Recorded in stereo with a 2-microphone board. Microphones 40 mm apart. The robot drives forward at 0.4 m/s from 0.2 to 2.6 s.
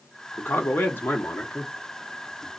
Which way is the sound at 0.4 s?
60° left (ahead or behind).